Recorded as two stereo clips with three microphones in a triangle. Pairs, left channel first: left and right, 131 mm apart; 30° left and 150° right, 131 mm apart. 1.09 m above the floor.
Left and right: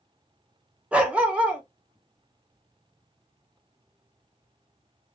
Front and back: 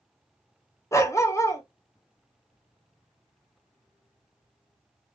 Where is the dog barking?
20° right, 0.5 m.